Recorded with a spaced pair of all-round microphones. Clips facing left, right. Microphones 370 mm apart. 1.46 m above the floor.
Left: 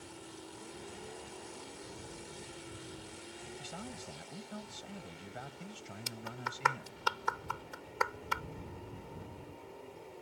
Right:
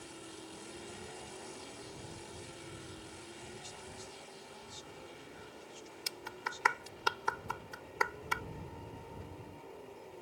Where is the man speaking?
85° left.